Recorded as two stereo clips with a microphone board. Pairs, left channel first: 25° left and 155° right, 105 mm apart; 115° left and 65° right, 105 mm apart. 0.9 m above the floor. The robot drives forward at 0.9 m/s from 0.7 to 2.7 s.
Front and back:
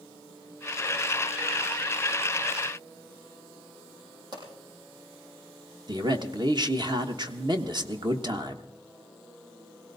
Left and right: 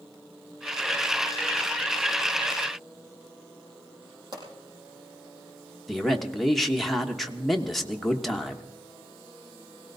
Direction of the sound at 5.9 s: 160° right.